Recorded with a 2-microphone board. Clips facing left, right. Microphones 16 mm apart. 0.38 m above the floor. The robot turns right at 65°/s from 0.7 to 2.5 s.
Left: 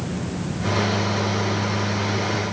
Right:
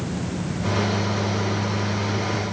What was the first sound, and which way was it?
Only background noise.